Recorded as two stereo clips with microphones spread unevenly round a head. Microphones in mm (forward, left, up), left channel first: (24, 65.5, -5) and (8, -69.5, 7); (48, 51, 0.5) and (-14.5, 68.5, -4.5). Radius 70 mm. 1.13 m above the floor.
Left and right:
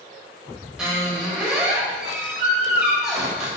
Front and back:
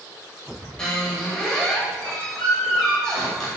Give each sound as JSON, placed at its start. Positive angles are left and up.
{"t": 0.8, "sound": "a squeak", "azimuth_deg": -40, "distance_m": 0.9}